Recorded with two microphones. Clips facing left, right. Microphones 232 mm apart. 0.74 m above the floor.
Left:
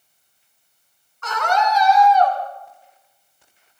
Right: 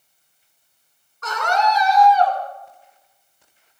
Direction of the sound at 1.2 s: 35° right (ahead or behind).